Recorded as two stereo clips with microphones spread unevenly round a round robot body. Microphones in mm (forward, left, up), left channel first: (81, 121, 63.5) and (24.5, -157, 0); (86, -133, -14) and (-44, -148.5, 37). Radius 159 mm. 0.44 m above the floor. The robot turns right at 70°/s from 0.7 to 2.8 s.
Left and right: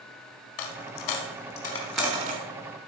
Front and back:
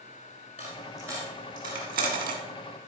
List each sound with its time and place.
0.6 s a dropped coin: 80° left, 1.3 m; by 2.4 s 160° right, 1.3 m